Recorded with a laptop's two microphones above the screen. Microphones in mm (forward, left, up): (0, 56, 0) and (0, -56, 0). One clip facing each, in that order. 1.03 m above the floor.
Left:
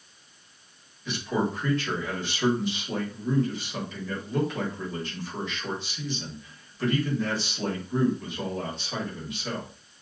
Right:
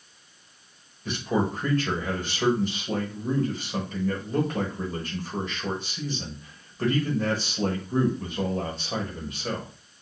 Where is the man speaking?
45° right (ahead or behind), 1.6 m.